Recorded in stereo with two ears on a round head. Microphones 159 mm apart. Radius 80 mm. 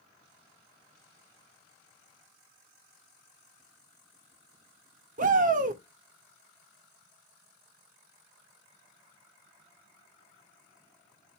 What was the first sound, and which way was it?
A shout, 45° right (ahead or behind).